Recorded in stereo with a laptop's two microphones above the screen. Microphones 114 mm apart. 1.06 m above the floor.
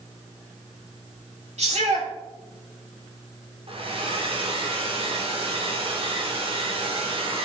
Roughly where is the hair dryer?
Right.